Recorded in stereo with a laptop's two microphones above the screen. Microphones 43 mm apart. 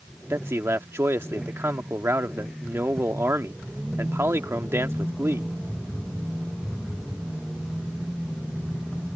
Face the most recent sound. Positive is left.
turn(degrees=-80)